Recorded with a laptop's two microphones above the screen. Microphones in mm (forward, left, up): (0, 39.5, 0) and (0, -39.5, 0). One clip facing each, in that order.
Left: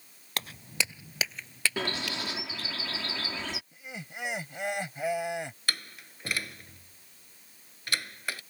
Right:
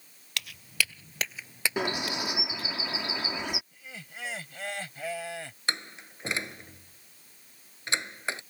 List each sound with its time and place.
0.4 s footsteps: 40° left (ahead or behind); by 2.8 s 50° right (ahead or behind)
1.8 s a bird: 20° right (ahead or behind)
3.7 s laughter: 20° left (ahead or behind)
5.7 s a door slam: 25° right (ahead or behind)